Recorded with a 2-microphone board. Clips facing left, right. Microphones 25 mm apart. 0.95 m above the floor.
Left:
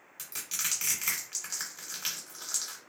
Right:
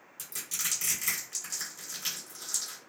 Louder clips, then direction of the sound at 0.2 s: Even; 40° left (ahead or behind).